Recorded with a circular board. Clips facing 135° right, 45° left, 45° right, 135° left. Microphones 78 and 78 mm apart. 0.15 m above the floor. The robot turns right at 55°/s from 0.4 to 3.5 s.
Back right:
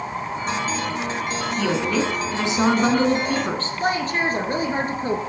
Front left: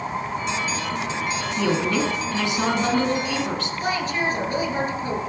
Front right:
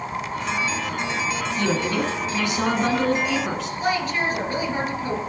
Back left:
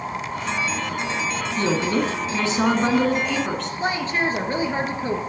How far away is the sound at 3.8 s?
About 2 m.